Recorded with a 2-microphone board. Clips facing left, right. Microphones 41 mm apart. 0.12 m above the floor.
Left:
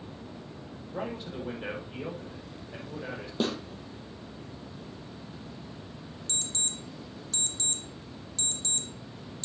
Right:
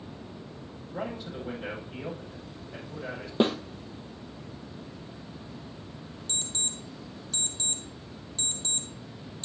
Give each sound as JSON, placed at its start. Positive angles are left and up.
{"t": 0.9, "sound": "a man speaking", "side_deg": 10, "distance_m": 5.5}
{"t": 3.4, "sound": "a snare drum", "side_deg": -35, "distance_m": 1.2}
{"t": 6.3, "sound": "an alarm clock", "side_deg": -30, "distance_m": 1.6}